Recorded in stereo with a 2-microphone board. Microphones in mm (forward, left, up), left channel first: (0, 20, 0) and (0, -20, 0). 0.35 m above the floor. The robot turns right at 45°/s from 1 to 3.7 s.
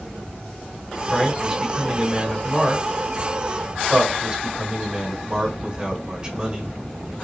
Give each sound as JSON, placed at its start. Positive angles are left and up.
{"t": 1.1, "sound": "a man speaking", "azimuth_deg": -175, "distance_m": 1.6}